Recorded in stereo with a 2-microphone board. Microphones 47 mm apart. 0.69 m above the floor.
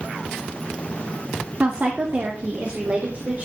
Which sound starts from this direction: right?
A woman speaking, at 1.6 s.